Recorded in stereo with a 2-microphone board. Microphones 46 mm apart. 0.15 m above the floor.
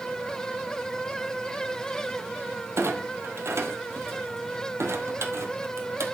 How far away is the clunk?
About 1.9 m.